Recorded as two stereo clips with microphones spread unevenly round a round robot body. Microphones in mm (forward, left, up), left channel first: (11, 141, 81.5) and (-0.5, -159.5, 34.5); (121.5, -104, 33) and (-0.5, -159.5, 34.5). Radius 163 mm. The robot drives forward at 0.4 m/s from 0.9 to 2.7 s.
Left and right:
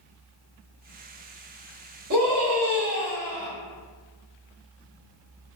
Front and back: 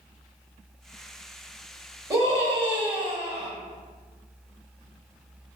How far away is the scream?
About 1.2 m.